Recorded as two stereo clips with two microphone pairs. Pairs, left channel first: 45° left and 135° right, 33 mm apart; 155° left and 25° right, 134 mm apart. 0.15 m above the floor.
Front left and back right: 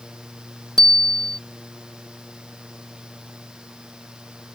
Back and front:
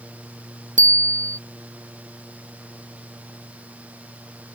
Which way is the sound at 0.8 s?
25° right.